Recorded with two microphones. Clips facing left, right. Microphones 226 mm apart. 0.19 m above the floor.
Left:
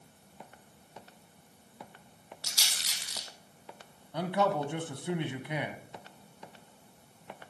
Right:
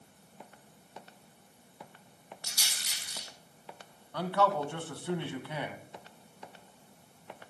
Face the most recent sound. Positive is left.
turn(degrees=15)  # may be behind; listen again after turning